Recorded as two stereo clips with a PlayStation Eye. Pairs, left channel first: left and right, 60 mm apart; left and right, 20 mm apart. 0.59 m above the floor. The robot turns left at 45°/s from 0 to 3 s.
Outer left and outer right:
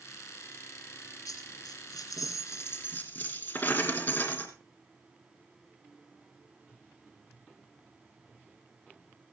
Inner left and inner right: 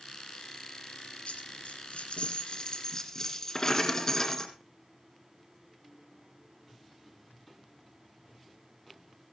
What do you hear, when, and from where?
1.3 s a dropped coin: 115° left, 2.5 m; by 4.5 s 35° left, 2.5 m